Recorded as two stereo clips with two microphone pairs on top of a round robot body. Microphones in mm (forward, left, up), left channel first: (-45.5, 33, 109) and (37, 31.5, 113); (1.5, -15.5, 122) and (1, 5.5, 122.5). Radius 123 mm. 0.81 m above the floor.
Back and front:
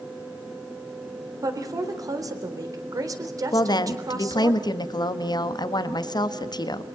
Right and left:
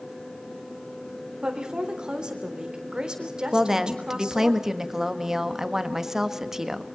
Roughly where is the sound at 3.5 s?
Behind.